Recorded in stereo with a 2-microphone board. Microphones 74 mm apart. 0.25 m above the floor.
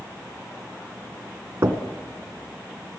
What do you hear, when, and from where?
1.6 s knocking: 40° right (ahead or behind), 1.7 m